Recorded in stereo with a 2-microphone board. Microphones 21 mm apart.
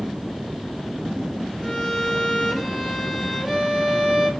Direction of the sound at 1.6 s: 5° left (ahead or behind).